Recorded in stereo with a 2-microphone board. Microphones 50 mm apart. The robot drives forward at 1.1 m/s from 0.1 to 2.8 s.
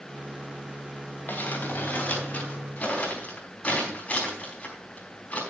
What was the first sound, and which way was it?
Crumpling, 40° left (ahead or behind).